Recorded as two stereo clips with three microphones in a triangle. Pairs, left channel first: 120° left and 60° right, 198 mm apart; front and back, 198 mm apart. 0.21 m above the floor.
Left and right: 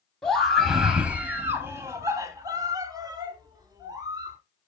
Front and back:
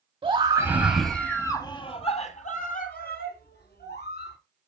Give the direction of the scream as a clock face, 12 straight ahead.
5 o'clock.